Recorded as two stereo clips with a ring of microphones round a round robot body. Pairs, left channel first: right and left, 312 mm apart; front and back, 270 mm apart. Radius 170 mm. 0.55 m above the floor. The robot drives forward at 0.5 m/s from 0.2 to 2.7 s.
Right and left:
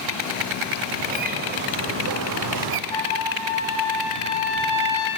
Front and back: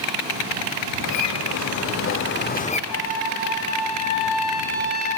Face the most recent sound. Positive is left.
turn(degrees=-15)